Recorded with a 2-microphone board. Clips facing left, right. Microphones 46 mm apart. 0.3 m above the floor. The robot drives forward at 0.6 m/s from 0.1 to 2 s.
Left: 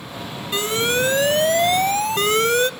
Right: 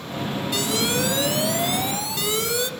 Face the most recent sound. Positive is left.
turn(degrees=50)  # may be behind; listen again after turning